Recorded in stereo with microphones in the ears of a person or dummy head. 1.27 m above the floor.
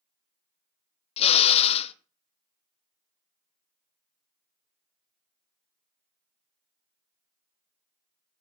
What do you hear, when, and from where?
1.2 s a drill: 30° left (ahead or behind), 0.8 m